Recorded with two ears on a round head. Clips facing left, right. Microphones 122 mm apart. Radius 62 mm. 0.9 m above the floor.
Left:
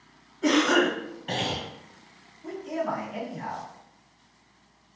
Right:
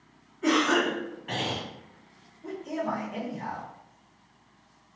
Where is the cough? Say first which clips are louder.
Left 2 dB; 35° left (ahead or behind), 1.1 m.